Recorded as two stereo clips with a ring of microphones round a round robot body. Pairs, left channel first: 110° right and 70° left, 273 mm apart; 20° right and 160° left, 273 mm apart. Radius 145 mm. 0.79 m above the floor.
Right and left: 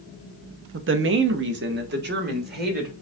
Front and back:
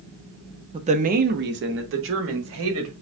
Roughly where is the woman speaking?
Left.